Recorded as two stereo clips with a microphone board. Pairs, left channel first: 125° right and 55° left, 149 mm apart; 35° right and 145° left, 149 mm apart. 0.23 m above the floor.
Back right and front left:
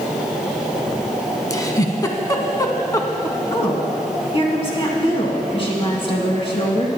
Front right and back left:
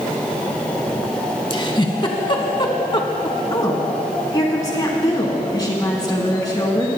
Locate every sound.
1.5 s a giggle: 70° right, 0.8 m
3.5 s a woman speaking: 90° right, 2 m